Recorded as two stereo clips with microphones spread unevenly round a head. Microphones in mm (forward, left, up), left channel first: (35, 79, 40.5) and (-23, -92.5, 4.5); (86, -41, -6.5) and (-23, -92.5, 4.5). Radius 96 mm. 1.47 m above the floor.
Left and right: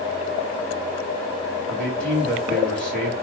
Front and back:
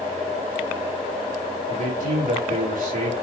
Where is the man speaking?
155° left, 4.5 m.